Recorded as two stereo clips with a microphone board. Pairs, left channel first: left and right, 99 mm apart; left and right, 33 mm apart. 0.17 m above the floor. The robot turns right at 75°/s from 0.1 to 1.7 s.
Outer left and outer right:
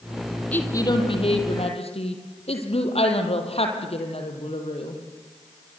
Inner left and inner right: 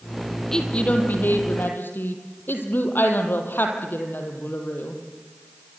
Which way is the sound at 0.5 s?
15° left.